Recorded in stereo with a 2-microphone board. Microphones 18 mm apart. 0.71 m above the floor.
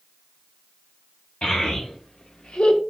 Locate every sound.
1.4 s a child speaking: 50° left (ahead or behind), 1.7 m; by 2.8 s 70° left (ahead or behind), 0.6 m